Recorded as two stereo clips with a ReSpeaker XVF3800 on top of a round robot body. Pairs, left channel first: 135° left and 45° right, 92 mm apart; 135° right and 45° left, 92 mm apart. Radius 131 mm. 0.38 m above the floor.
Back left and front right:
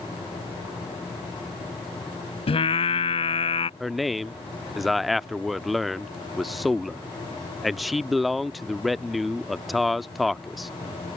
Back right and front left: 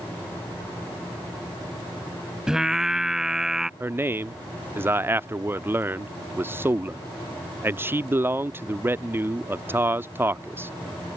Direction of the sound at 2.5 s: 130° left.